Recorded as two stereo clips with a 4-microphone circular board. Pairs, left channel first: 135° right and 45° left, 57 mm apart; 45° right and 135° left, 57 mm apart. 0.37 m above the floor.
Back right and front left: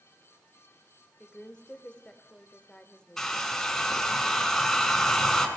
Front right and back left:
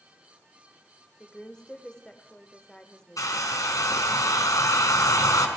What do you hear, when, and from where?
1.2 s a woman speaking: 100° right, 1.2 m
3.2 s a hair dryer: 50° right, 2.5 m